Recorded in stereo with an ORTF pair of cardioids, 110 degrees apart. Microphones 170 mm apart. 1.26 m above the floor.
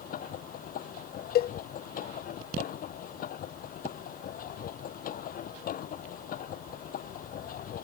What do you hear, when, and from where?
0.0 s a machine running: 55° left
1.4 s a cowbell: 65° left